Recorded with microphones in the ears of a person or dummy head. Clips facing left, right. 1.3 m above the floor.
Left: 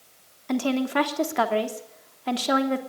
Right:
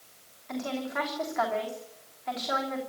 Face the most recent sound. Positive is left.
turn(degrees=65)  # may be behind; listen again after turning